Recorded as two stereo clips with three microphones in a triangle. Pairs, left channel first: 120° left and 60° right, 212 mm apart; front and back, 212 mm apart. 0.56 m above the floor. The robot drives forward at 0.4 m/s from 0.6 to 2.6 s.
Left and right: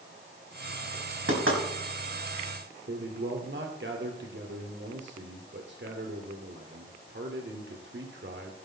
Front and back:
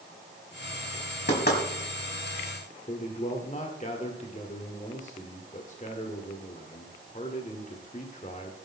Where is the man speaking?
50° right, 2.0 m.